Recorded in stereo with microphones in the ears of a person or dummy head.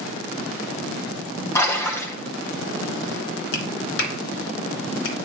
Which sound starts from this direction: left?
A clap, at 3.5 s.